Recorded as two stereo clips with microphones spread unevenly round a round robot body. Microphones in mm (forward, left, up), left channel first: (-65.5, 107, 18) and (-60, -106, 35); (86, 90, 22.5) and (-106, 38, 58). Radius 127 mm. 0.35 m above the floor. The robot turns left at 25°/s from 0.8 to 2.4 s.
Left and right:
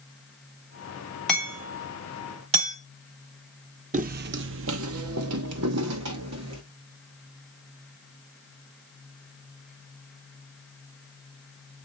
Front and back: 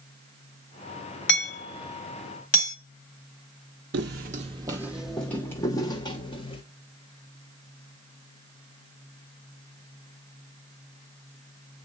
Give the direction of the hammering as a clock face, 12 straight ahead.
12 o'clock.